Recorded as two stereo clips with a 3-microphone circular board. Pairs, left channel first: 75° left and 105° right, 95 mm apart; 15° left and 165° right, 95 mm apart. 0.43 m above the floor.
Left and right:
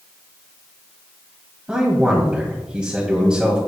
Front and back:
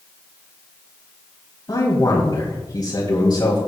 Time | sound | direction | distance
1.7 | a man speaking | 25° right | 2.5 m